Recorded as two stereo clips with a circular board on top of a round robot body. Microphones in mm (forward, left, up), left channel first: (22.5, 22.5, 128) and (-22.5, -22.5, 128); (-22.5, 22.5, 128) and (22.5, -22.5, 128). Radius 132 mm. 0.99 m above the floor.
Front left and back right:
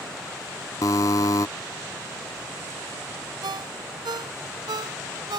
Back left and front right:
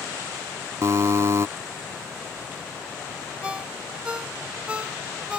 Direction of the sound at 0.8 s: 5° left.